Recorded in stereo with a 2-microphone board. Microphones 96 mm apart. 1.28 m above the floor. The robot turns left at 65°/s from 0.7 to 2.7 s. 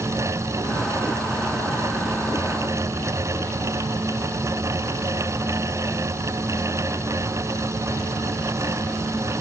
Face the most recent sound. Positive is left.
No sound to turn to.